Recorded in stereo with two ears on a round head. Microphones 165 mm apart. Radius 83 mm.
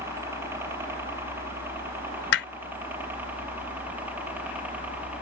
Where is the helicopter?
15° right (ahead or behind); by 5.2 s 10° right (ahead or behind).